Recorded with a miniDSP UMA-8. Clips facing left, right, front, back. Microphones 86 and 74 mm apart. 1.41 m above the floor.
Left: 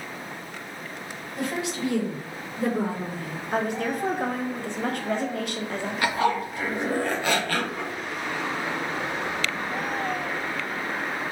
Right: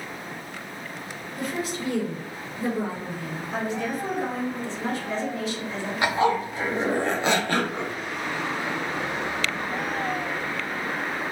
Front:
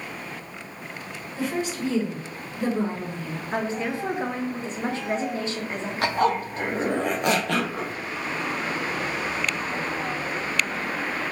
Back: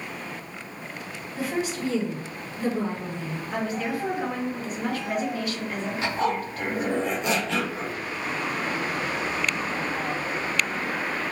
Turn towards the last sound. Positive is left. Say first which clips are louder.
# right 2 dB, front 4 dB
turn(degrees=-25)